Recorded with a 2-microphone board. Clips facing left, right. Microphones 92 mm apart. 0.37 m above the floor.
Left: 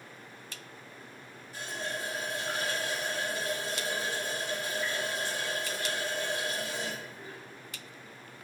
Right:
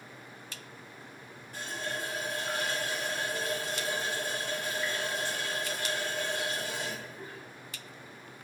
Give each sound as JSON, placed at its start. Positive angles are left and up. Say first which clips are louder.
{"t": 1.5, "sound": "a running tap", "louder": "even", "side_deg": -55, "distance_m": 1.7}